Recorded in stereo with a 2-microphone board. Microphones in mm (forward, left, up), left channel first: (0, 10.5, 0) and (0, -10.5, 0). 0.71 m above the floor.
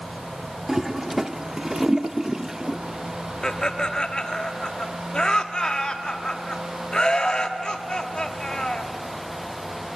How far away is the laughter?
About 1.2 m.